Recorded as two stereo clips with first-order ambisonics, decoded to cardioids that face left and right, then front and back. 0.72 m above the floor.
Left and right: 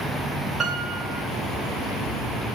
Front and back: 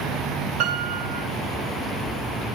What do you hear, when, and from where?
0.6 s a piano: 155° right, 3 m